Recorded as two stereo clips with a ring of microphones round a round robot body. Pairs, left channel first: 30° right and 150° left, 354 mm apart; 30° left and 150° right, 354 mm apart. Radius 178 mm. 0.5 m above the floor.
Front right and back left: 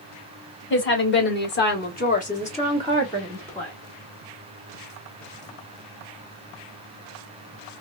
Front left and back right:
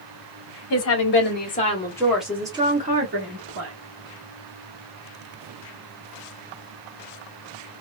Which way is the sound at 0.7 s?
15° left.